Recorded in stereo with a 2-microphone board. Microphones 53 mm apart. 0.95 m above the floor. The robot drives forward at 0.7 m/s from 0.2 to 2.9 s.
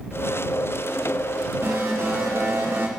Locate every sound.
1.6 s an alarm: 40° right (ahead or behind), 4.5 m; by 2.9 s 50° right (ahead or behind), 4 m